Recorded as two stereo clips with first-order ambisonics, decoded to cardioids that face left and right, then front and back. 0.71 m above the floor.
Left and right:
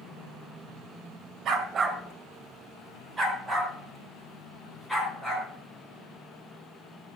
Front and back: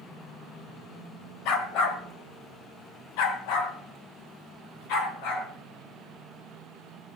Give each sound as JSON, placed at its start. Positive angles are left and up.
{"t": 1.4, "sound": "a dog barking", "azimuth_deg": -35, "distance_m": 1.5}